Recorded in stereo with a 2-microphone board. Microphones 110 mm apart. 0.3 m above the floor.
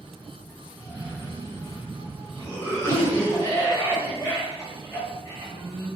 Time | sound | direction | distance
0.8 | a cough | 30° left (ahead or behind) | 1.8 m